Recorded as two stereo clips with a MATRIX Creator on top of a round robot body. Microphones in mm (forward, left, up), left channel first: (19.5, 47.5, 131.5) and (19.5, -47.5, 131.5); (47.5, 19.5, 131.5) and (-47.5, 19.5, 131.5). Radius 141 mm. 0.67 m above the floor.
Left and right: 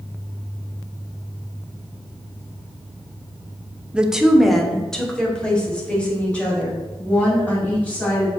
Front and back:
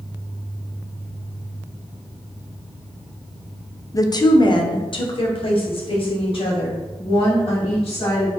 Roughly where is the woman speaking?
Ahead.